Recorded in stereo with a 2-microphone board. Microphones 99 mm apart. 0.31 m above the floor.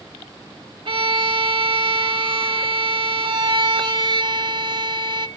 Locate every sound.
0.8 s a violin: 60° right (ahead or behind), 0.6 m
3.2 s a violin: 55° right (ahead or behind), 1.3 m